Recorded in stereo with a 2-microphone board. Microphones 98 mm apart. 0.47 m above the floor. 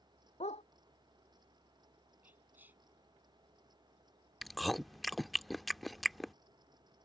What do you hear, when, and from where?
0.4 s a dog barking: 85° left
2.2 s whispering: 15° right (ahead or behind)
4.4 s chewing: centre (ahead or behind)